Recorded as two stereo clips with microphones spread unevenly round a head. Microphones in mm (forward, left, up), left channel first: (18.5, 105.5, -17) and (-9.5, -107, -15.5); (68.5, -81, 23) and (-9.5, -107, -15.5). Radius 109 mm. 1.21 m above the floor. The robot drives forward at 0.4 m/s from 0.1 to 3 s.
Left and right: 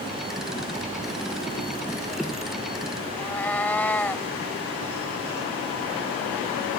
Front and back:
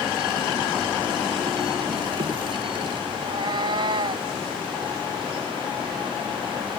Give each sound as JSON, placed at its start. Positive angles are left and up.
{"t": 3.1, "sound": "a cat meowing", "azimuth_deg": 160}